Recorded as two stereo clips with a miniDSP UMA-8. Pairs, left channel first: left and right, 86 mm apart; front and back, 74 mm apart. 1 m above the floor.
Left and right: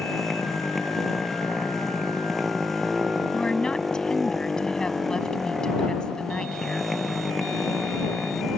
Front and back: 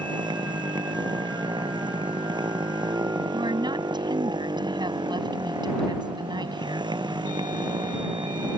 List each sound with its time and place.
0.0 s a motorcycle: straight behind
3.3 s a woman speaking: 170° left